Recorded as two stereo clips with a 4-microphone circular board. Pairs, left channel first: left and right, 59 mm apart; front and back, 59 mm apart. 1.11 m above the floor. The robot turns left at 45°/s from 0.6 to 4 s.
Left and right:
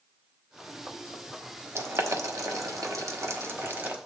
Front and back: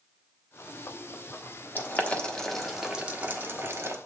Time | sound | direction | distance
1.8 | boiling | 50° right | 1.2 m